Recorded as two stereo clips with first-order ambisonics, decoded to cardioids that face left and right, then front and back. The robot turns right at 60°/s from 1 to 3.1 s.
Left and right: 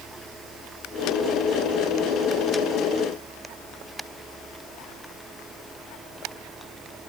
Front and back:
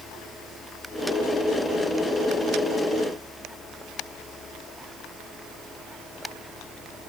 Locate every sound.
Only background noise.